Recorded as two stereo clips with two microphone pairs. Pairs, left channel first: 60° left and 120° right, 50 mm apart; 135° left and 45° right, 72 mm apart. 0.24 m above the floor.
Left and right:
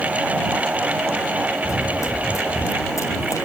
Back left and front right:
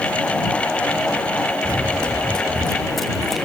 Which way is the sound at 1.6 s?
60° left.